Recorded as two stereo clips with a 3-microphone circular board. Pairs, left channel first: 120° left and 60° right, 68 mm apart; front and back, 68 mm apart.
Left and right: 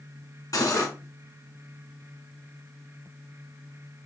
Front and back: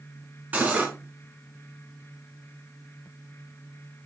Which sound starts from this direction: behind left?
Cutlery clinking, at 0.5 s.